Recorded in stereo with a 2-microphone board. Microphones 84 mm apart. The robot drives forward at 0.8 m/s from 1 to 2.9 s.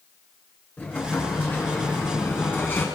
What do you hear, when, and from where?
0.8 s an explosion: 20° left (ahead or behind), 6 m; by 2.9 s 25° left (ahead or behind), 4.5 m